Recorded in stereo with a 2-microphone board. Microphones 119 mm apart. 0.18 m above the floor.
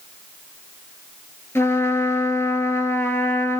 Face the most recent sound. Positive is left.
turn(degrees=20)  # may be behind; listen again after turning